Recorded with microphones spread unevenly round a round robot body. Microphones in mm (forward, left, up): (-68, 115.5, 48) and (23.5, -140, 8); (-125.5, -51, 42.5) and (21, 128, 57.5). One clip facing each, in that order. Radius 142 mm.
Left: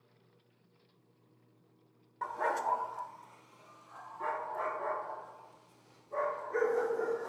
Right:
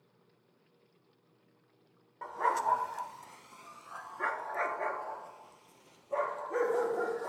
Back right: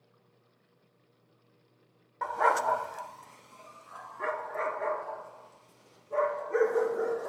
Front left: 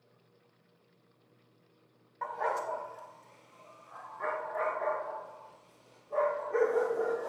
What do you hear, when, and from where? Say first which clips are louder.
2.2 s a dog barking: even, back right 5 dB; 175° right, 0.5 m; by 7.3 s 60° right, 3 m